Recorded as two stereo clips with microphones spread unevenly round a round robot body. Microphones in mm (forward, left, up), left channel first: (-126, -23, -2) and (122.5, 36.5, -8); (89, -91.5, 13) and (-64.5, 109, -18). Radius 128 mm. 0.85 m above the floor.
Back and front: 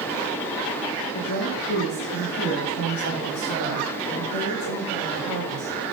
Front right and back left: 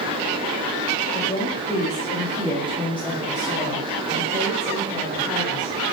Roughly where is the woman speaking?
Behind right.